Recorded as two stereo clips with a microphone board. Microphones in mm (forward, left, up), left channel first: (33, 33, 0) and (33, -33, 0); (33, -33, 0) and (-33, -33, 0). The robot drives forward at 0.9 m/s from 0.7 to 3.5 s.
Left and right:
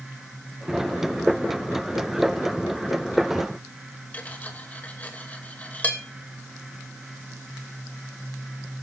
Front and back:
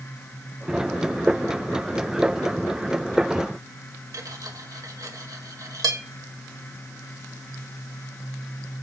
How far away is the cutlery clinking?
About 2.0 m.